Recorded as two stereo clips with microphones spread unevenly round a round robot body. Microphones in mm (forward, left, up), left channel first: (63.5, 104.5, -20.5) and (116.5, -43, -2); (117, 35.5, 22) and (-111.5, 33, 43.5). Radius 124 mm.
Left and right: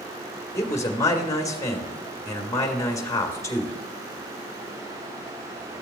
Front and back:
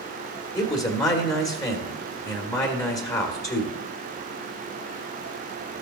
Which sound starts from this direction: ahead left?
A man speaking, at 0.6 s.